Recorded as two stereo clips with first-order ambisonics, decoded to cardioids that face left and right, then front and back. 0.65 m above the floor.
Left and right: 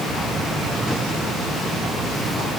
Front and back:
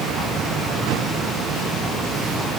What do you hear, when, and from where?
Only background noise.